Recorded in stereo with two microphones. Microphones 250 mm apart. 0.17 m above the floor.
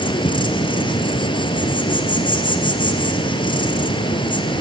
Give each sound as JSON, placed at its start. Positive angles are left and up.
{"t": 0.0, "sound": "an insect", "side_deg": 20, "distance_m": 1.7}